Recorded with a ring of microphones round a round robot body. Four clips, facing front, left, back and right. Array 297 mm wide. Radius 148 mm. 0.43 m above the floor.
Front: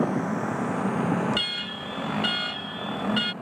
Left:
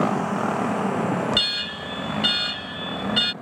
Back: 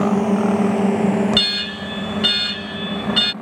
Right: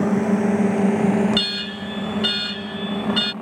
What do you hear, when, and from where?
0.0 s a drone: 150° right; by 3.4 s 125° right
1.3 s an alarm: straight behind